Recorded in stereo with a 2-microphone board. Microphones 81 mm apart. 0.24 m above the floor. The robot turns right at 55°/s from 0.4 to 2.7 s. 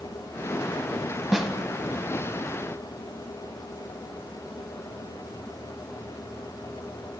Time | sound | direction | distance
1.3 | a snare drum | centre (ahead or behind) | 0.7 m